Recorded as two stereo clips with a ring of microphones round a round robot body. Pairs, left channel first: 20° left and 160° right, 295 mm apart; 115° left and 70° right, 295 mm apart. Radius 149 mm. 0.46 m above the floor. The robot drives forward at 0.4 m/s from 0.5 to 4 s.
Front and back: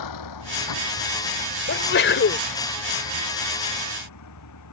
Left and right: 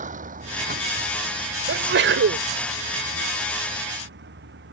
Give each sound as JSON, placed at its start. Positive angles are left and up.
{"t": 0.0, "sound": "a vehicle", "azimuth_deg": 0}
{"t": 1.7, "sound": "a sneeze", "azimuth_deg": -20}